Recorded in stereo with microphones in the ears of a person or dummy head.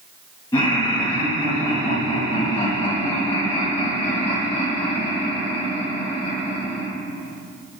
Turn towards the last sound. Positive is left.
turn(degrees=25)  # may be behind; listen again after turning